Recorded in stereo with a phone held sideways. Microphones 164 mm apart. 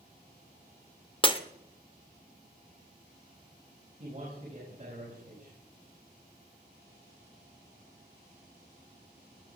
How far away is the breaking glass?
About 1.2 m.